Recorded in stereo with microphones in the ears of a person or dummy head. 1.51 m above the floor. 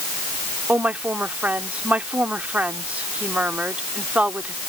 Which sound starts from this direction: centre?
A woman speaking, at 0.7 s.